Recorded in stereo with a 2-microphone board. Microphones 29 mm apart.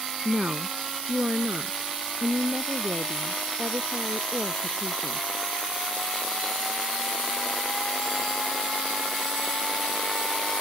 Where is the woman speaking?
45° right (ahead or behind); by 5.4 s 75° right (ahead or behind).